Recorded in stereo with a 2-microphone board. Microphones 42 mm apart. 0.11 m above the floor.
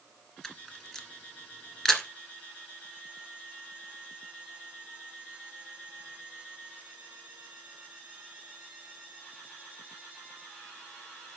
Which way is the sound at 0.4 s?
15° left (ahead or behind).